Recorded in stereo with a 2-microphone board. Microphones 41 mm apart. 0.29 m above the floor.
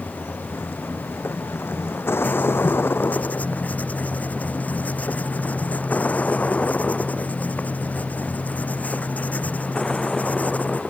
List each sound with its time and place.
0.0 s a vehicle: 85° left; by 10.9 s 10° left (ahead or behind)
2.2 s writing: 40° left (ahead or behind)